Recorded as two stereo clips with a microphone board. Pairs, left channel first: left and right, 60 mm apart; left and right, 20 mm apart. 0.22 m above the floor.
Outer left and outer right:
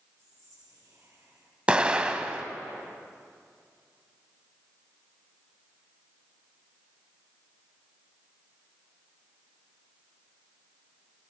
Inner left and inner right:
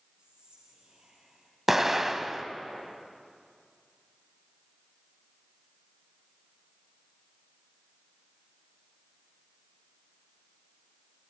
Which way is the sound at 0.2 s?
70° right (ahead or behind).